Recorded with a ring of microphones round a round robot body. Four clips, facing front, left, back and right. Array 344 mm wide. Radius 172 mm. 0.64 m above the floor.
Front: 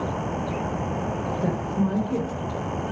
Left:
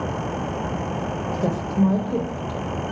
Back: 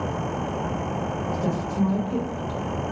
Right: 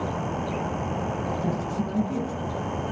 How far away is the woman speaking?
About 3 m.